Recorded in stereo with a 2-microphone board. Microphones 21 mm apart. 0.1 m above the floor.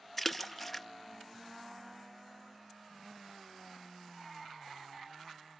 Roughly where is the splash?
Centre.